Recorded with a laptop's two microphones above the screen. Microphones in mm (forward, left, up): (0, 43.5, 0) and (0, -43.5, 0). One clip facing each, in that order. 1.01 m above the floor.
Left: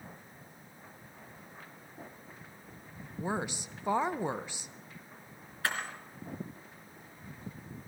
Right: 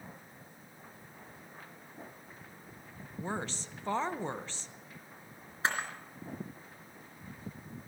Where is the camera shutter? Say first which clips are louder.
Right 2 dB; 25° right (ahead or behind), 3.5 m.